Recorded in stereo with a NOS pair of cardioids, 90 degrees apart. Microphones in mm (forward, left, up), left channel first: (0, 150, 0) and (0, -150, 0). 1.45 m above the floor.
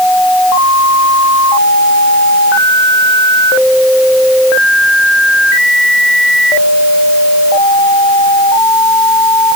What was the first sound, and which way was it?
Only background noise.